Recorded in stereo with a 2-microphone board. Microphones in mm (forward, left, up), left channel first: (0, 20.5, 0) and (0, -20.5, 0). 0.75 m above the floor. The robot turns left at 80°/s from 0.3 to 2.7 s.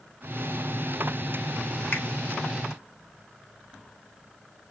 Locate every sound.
1.9 s a finger snap: 50° left (ahead or behind), 1.1 m; by 2.1 s 60° left (ahead or behind), 1.1 m